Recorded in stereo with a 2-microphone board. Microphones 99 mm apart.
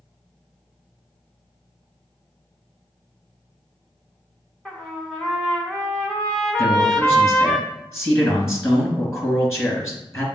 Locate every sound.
4.7 s a trumpet: 10° left (ahead or behind), 0.8 m
6.6 s a man speaking: 25° left (ahead or behind), 2.0 m